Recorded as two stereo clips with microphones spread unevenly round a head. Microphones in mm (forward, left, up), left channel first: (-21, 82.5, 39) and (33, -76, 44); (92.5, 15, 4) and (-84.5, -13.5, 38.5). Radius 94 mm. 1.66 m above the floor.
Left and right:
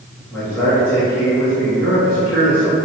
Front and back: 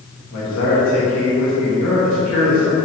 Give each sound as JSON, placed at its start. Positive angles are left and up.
{"t": 0.3, "sound": "a man speaking", "azimuth_deg": 30, "distance_m": 1.8}